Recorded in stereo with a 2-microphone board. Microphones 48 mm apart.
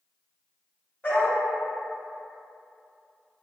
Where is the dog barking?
30° left (ahead or behind), 1.4 m.